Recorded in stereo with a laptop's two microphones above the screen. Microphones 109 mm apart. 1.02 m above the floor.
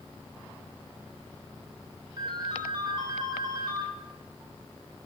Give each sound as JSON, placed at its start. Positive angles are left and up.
{"t": 2.2, "sound": "a ringtone", "side_deg": -45, "distance_m": 3.5}